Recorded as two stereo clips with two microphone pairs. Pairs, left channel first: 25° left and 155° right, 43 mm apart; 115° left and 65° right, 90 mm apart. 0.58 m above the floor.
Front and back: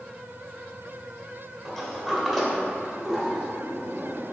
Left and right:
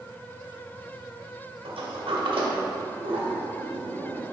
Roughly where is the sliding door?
Ahead right.